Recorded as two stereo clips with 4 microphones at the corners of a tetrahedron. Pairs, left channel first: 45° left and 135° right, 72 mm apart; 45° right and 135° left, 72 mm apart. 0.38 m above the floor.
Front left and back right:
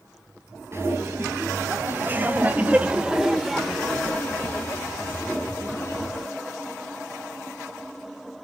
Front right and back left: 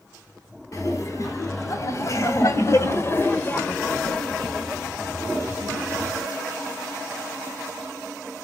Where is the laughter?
85° right, 3.5 m; by 6.2 s 75° left, 2.5 m.